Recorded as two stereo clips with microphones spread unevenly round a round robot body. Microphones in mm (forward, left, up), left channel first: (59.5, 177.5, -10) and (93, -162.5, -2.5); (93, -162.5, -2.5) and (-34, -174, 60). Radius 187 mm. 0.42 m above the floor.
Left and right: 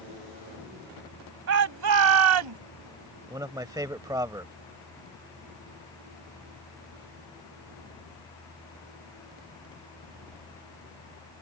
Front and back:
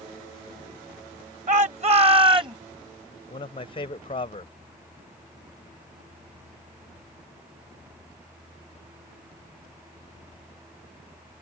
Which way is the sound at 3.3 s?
5° right.